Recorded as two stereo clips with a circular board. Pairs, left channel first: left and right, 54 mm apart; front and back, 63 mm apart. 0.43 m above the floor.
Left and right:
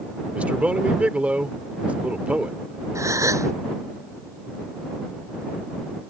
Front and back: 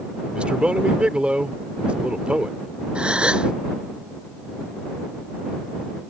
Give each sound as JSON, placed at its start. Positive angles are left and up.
{"t": 0.3, "sound": "a man speaking", "azimuth_deg": -130}
{"t": 3.0, "sound": "a gasp", "azimuth_deg": -105}